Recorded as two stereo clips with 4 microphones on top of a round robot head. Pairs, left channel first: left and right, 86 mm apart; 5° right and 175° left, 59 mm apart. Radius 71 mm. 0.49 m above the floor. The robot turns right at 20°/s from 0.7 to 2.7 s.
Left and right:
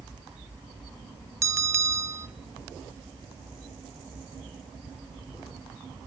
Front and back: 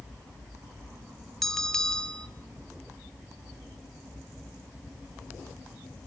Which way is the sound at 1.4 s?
85° right.